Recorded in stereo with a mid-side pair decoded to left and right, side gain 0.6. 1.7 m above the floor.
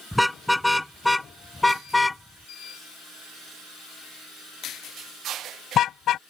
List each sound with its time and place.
0.1 s a car horn: 5° left; by 6.2 s 55° left